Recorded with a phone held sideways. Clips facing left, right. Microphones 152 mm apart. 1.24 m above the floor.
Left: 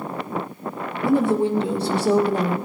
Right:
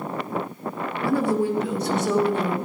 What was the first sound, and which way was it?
A woman speaking, 20° left (ahead or behind).